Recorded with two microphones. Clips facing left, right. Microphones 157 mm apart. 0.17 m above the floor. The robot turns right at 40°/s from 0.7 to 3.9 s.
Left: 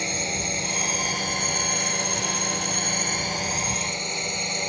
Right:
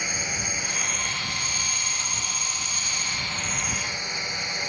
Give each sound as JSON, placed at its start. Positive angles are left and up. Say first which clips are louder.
{"t": 0.0, "sound": "a drone", "louder": "left 5 dB", "azimuth_deg": 30}